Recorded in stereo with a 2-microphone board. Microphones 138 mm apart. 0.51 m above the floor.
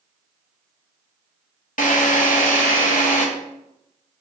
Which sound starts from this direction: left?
A drill, at 1.8 s.